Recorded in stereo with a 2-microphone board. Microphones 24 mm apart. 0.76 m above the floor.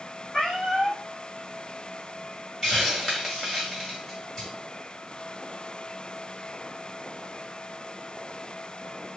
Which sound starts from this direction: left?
A cat meowing, at 0.3 s.